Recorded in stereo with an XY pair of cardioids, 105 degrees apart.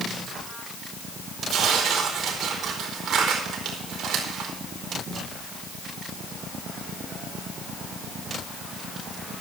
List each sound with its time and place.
1.5 s tearing paper: 65° right, 4.5 m